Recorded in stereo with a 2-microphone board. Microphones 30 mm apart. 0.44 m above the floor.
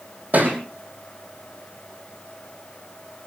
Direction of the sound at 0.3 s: 60° right (ahead or behind).